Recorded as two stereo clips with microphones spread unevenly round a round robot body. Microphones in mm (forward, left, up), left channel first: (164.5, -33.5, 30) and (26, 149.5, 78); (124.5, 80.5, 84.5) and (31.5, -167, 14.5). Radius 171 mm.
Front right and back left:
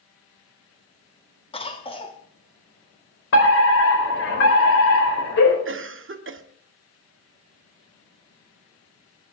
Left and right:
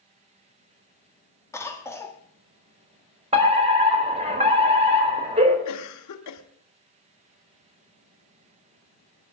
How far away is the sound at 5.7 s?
About 1.3 m.